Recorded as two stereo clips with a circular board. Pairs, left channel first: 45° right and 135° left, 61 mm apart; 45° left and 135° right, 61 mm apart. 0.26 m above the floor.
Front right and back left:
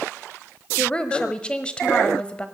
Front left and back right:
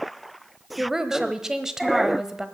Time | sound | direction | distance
0.8 | a woman speaking | 75° right | 1.0 m